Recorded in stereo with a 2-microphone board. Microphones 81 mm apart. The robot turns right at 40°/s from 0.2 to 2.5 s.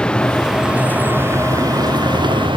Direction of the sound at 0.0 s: 170° left.